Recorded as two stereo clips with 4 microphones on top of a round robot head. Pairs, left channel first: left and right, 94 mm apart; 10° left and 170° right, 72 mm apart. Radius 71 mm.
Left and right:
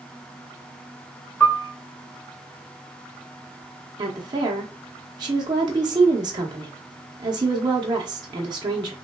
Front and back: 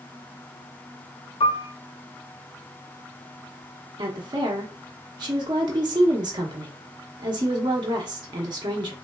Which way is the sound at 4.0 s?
140° right.